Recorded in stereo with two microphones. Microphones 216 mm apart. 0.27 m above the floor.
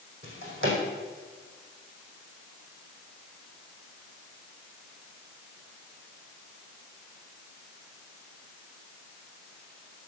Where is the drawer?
70° right (ahead or behind), 4.5 m.